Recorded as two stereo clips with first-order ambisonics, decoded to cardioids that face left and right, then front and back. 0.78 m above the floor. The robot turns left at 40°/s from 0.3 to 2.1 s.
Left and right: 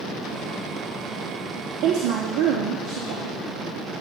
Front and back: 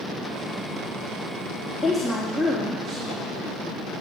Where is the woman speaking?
80° right, 0.9 m; by 3.3 s 95° right, 0.9 m.